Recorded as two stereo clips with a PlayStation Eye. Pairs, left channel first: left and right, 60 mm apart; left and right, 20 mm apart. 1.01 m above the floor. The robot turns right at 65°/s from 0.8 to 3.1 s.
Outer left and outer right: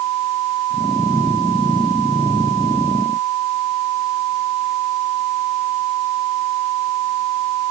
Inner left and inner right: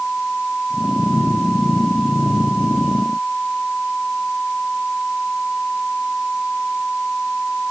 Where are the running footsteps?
I don't hear running footsteps.